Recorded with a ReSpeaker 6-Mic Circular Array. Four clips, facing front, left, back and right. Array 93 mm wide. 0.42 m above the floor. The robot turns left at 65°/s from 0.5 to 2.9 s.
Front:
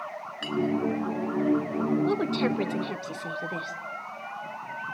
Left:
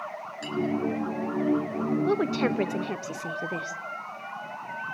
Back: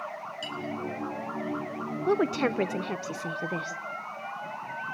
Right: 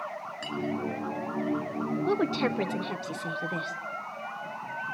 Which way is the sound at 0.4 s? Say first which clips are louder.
Left 3 dB, front 4 dB; 20° right.